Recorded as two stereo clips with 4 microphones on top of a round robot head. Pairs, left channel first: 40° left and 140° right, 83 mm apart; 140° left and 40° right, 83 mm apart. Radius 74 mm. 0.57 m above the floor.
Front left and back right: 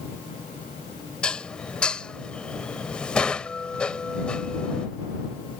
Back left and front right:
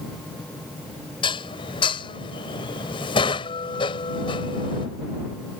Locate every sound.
1.2 s dishes clattering: 120° left